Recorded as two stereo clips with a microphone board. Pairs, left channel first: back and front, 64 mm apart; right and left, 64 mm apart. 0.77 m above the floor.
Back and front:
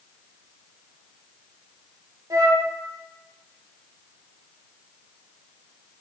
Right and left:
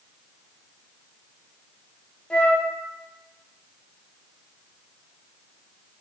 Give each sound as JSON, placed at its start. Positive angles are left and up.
{"t": 2.3, "sound": "a flute", "azimuth_deg": -20, "distance_m": 0.6}